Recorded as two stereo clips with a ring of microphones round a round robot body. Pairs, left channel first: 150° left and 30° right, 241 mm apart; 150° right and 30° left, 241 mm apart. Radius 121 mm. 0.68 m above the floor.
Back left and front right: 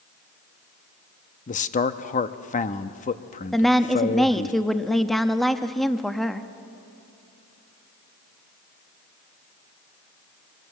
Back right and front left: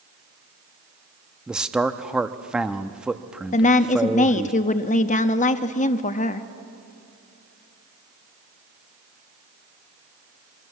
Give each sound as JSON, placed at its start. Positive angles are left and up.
{"t": 1.5, "sound": "a man speaking", "azimuth_deg": 115, "distance_m": 0.7}
{"t": 3.5, "sound": "a woman speaking", "azimuth_deg": -120, "distance_m": 0.7}